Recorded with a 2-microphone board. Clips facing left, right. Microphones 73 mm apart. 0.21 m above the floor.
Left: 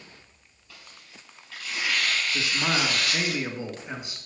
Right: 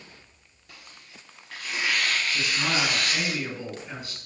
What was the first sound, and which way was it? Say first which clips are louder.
Tearing paper: right 1 dB; 70° right (ahead or behind).